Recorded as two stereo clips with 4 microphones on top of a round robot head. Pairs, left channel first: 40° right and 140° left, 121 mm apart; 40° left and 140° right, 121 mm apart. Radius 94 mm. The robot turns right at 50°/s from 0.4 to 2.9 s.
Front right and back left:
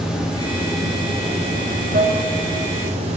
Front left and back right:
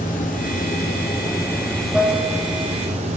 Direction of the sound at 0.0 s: 55° left.